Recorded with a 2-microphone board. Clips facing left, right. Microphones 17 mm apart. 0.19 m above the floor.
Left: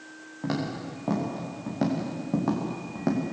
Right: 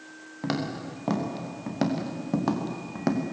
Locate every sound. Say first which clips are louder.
0.4 s footsteps: even; 85° right, 5.5 m; by 3.2 s 65° right (ahead or behind), 3.5 m